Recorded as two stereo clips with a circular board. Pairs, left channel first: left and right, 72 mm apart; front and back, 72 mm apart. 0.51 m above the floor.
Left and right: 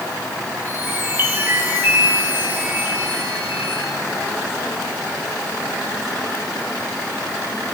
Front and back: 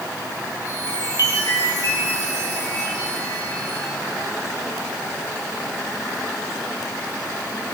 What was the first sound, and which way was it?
A chime, 30° right.